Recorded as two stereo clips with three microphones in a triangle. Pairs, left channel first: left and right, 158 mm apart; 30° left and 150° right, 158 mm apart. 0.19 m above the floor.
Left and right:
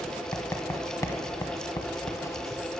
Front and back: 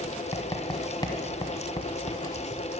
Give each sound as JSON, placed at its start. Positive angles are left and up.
{"t": 0.3, "sound": "writing", "azimuth_deg": 45, "distance_m": 1.0}